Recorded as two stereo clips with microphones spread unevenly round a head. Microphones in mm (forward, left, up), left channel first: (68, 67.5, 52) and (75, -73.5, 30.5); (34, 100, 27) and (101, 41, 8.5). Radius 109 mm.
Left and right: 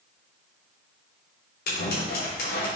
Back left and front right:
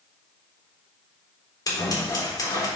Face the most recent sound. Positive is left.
turn(degrees=95)